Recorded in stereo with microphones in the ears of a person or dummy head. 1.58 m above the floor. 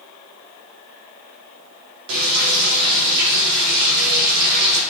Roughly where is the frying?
Right.